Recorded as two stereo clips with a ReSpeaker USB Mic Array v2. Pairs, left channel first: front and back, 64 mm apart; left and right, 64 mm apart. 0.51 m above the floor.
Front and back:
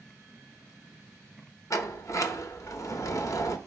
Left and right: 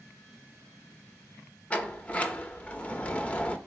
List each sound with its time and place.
1.7 s a sliding door: 25° left, 0.8 m